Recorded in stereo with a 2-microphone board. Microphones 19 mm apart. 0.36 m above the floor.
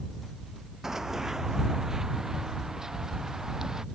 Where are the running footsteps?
25° right (ahead or behind); by 3.8 s 30° right (ahead or behind).